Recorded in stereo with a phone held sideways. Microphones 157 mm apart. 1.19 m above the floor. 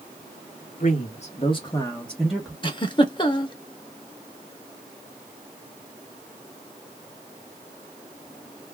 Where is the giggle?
30° left (ahead or behind), 0.6 m.